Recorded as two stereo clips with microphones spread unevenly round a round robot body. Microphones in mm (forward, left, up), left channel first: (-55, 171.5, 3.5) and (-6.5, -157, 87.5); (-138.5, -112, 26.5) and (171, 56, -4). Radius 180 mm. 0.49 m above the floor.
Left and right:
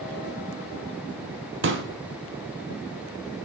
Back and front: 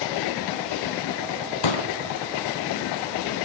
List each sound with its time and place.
1.6 s a pop: 135° right, 2.5 m